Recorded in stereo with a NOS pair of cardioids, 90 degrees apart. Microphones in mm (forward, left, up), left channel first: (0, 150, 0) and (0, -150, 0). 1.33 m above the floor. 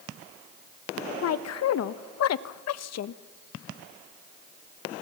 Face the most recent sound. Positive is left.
turn(degrees=60)